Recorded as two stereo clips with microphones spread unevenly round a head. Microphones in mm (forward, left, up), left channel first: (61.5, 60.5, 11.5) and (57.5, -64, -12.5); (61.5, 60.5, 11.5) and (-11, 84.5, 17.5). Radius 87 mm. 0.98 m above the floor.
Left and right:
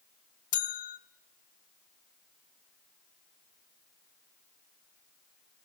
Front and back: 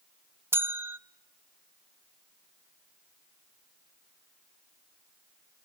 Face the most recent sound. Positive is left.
turn(degrees=105)